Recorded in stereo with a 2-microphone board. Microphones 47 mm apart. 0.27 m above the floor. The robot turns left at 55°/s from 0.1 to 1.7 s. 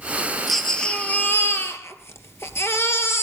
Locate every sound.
0.5 s a baby crying: straight behind, 2.5 m; by 3.2 s 115° left, 2.5 m